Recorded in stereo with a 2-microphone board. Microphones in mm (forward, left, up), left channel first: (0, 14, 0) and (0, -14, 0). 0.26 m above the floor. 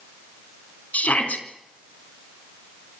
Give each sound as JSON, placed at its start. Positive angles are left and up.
{"t": 0.9, "sound": "a shout", "side_deg": 65, "distance_m": 3.5}